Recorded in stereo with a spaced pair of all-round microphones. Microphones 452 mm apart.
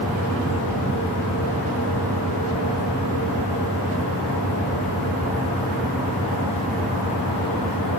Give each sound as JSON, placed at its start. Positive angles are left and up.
{"t": 0.0, "sound": "a fan", "side_deg": 25, "distance_m": 2.5}